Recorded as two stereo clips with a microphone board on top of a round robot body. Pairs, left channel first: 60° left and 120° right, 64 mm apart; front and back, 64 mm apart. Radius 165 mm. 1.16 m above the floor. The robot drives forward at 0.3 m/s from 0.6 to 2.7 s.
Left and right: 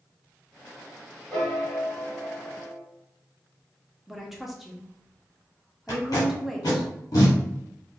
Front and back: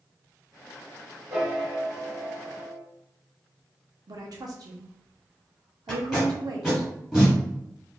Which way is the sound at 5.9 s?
90° left.